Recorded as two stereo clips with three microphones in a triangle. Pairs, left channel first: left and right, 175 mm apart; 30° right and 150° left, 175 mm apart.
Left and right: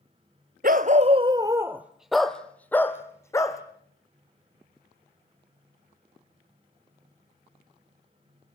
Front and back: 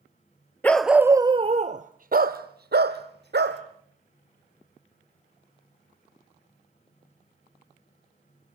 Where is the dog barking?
110° right, 1.0 m; by 3.6 s 160° left, 2.5 m.